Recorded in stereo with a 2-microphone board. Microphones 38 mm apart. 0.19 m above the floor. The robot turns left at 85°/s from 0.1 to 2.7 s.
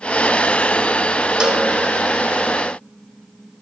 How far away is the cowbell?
About 0.6 m.